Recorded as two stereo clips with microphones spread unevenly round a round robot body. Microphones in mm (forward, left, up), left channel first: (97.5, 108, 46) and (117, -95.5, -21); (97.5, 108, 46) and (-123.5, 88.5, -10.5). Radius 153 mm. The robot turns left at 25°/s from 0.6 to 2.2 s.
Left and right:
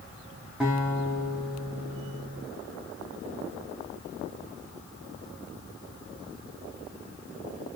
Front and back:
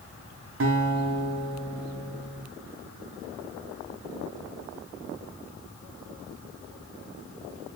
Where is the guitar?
165° right, 0.7 m; by 2.4 s 155° left, 0.7 m.